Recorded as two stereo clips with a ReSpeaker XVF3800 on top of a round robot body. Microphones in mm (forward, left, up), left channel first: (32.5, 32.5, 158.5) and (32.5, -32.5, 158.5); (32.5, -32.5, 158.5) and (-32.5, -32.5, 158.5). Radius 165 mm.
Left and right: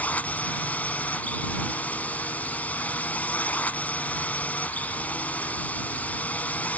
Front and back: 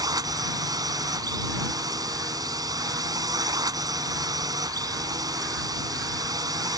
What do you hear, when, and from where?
0.0 s a drone: 160° left